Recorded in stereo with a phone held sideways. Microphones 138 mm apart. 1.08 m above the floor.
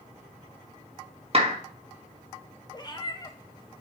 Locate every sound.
1.3 s a clap: 45° right (ahead or behind), 1.7 m
2.7 s a cat meowing: 30° left (ahead or behind), 0.9 m